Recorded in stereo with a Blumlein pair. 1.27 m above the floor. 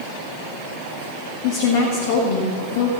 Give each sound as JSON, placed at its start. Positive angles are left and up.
{"t": 1.4, "sound": "a woman speaking", "azimuth_deg": 50, "distance_m": 1.8}